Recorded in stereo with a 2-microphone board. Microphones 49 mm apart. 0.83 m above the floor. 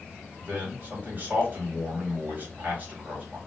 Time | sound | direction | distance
0.4 | a man speaking | 35° right (ahead or behind) | 1.8 m